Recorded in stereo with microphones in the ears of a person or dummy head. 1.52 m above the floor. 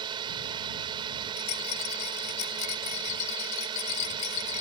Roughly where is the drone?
Right.